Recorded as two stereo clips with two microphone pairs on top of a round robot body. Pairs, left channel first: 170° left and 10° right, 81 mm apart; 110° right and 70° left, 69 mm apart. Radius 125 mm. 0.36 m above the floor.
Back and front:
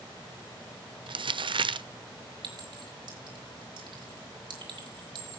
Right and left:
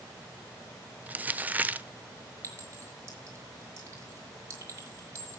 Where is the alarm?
No alarm in this recording.